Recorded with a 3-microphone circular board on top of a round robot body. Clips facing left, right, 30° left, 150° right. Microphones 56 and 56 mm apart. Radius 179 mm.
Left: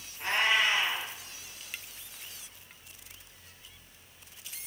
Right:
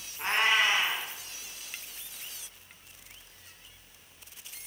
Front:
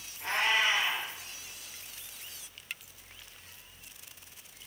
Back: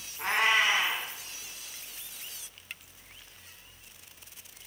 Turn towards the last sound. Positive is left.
turn(degrees=-145)